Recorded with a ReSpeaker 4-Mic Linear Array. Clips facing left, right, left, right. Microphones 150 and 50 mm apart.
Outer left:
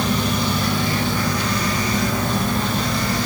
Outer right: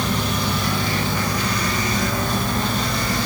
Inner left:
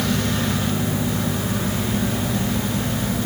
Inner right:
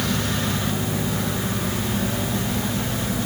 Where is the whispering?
No whispering in this recording.